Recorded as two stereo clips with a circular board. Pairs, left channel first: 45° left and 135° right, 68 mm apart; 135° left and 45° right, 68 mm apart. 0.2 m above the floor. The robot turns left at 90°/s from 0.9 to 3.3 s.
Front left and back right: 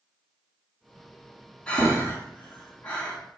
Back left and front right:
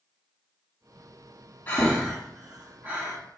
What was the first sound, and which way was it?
Breathing, 105° left.